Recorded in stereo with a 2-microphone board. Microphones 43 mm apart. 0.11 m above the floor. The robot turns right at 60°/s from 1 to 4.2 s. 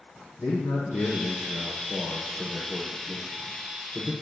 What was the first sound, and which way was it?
A man speaking, 90° left.